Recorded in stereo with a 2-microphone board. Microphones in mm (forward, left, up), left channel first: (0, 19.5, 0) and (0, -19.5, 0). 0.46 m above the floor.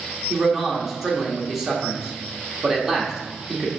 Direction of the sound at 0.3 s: 10° right (ahead or behind).